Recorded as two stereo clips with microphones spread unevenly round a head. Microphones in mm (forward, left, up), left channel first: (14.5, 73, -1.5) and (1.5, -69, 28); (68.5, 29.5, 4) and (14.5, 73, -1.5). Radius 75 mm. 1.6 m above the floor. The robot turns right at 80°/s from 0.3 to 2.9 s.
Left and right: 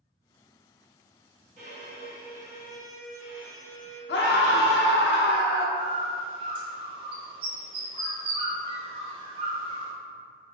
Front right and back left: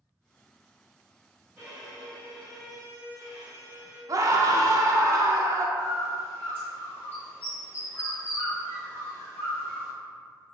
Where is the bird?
95° right, 0.8 m.